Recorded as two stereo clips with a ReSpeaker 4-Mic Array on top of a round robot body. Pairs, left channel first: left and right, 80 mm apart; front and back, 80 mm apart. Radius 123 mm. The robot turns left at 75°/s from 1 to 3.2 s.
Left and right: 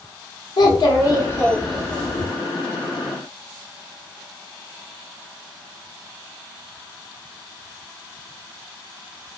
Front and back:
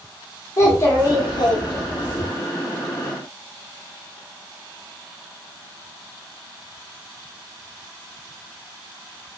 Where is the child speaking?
55° left, 0.9 m; by 2.2 s 40° right, 0.9 m.